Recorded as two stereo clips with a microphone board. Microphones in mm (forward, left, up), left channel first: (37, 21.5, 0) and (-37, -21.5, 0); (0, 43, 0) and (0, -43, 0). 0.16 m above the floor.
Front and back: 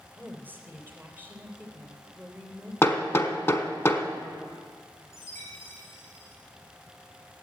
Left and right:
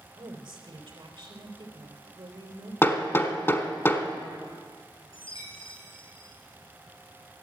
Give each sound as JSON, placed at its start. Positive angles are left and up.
{"t": 0.1, "sound": "a woman speaking", "azimuth_deg": -85, "distance_m": 3.0}
{"t": 2.8, "sound": "hammering", "azimuth_deg": 55, "distance_m": 1.2}
{"t": 5.1, "sound": "a chime", "azimuth_deg": 90, "distance_m": 4.5}